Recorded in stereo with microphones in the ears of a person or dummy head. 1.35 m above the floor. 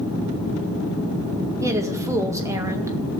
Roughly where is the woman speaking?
Right.